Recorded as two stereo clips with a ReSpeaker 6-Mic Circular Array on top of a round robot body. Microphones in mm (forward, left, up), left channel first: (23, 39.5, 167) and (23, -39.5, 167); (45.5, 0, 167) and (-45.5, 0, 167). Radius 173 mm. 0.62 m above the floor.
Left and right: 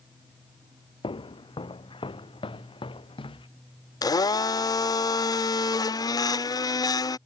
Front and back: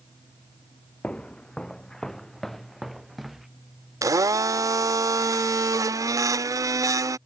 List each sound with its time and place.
1.0 s footsteps: 80° left; by 3.5 s 95° left
4.0 s a blender: 125° left